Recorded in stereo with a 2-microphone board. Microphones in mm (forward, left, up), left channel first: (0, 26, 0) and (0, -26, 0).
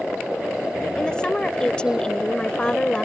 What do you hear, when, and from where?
1.0 s a woman speaking: 15° left (ahead or behind)